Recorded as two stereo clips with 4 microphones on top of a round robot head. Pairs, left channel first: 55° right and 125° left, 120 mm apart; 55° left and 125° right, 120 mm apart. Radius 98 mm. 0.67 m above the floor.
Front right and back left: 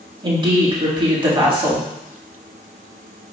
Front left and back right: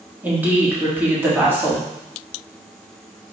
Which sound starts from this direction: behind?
A woman speaking, at 0.2 s.